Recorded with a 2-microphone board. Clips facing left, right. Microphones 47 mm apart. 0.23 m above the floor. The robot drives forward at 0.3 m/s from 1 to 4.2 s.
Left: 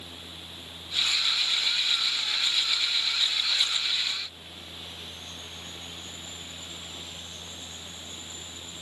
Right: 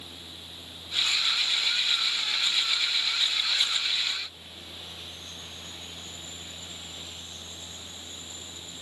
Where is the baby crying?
I don't hear a baby crying.